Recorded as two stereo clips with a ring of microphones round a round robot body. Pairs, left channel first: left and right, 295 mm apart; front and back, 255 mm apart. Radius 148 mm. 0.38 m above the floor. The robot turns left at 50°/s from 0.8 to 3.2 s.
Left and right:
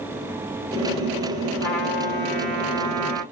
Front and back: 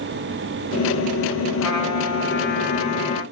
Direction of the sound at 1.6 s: 10° left.